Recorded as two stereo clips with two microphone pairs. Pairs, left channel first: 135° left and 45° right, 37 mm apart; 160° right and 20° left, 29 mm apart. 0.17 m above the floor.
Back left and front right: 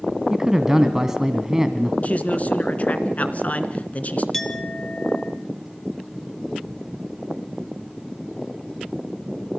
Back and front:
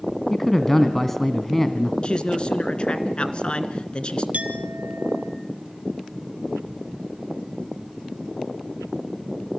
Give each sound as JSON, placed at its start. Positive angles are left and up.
{"t": 0.3, "sound": "a man speaking", "azimuth_deg": -100, "distance_m": 1.3}
{"t": 2.0, "sound": "a man speaking", "azimuth_deg": 160, "distance_m": 2.0}
{"t": 4.3, "sound": "a clink", "azimuth_deg": 55, "distance_m": 2.5}